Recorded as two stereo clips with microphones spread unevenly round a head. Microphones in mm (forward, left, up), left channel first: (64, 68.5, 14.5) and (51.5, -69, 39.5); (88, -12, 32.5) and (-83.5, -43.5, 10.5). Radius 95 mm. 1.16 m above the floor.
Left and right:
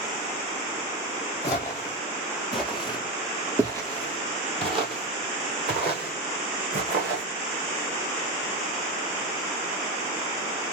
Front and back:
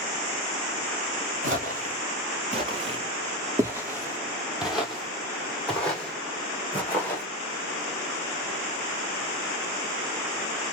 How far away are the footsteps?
About 1.5 m.